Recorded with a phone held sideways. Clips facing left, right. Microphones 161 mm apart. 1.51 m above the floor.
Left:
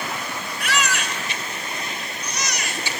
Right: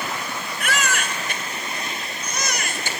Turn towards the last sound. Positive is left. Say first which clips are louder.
# even
turn(degrees=-50)  # may be behind; listen again after turning